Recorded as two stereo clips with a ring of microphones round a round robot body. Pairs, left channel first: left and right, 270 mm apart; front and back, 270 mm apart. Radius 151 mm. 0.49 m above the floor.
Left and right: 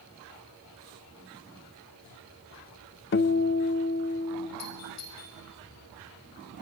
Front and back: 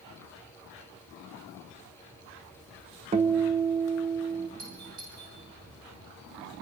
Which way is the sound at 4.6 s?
115° left.